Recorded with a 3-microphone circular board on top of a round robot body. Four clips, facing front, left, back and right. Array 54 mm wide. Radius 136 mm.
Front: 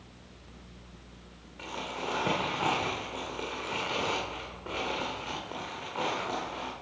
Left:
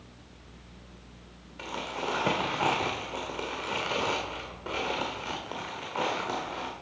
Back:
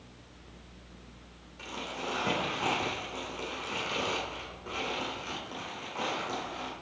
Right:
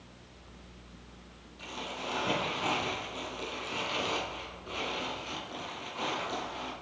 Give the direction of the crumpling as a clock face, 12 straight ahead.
10 o'clock.